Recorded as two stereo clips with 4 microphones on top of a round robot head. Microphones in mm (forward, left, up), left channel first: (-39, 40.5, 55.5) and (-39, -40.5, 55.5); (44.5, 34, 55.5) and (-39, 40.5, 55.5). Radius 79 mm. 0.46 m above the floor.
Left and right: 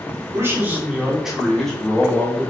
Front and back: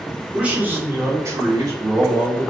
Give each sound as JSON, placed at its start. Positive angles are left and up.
{"t": 0.3, "sound": "a man speaking", "azimuth_deg": -120, "distance_m": 1.7}